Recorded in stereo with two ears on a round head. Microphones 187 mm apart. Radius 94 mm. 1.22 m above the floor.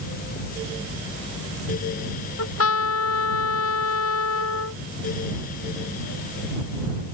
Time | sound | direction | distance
2.4 | a trumpet | 75° left (ahead or behind) | ?